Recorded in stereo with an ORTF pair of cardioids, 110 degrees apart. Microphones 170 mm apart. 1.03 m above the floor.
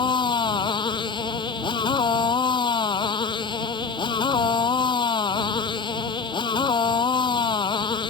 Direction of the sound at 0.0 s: 30° left.